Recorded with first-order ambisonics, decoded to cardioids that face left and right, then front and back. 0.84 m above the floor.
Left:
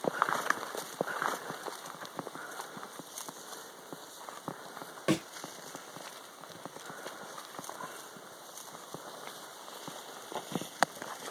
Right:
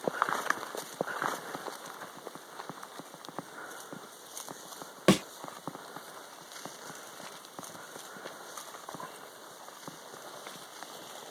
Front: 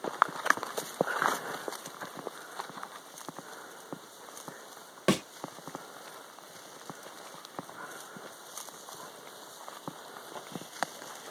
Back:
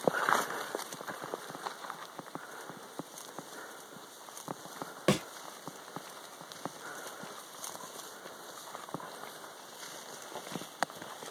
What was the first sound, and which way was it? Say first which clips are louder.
A thud: right 5 dB, front 2 dB; 80° right.